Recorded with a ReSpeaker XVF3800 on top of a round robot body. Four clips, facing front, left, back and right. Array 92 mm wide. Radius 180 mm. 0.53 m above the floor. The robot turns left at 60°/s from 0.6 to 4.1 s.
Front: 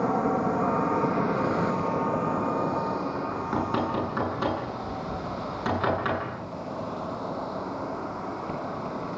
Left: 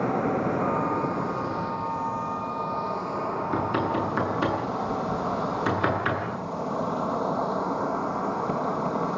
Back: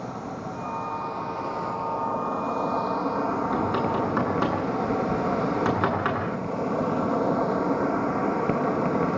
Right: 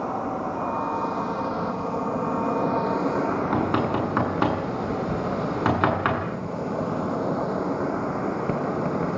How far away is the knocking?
About 7 m.